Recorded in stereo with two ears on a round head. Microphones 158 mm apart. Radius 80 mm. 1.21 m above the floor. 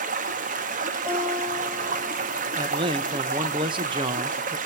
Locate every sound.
0.0 s running water: 50° right (ahead or behind), 1.2 m
1.1 s a guitar: 15° right (ahead or behind), 8.5 m
2.5 s a man speaking: 25° right (ahead or behind), 1.2 m